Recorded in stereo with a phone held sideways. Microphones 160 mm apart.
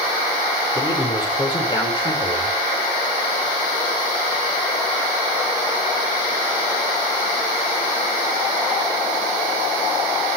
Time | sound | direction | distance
0.8 | a man speaking | 25° left (ahead or behind) | 5.5 m